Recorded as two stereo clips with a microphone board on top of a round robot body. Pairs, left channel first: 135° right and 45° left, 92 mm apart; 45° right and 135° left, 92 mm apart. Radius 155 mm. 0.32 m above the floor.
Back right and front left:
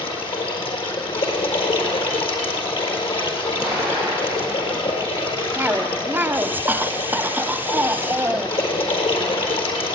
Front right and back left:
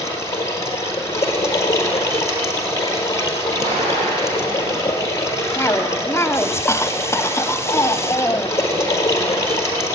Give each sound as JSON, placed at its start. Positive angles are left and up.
{"t": 0.0, "sound": "running water", "azimuth_deg": -105, "distance_m": 4.5}
{"t": 3.6, "sound": "an explosion", "azimuth_deg": 135, "distance_m": 8.0}
{"t": 5.5, "sound": "a cough", "azimuth_deg": -10, "distance_m": 1.6}